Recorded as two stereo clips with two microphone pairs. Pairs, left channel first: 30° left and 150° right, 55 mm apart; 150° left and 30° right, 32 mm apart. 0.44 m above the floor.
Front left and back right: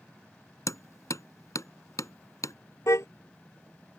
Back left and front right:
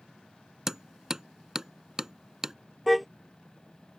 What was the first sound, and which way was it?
Hammering, 45° left.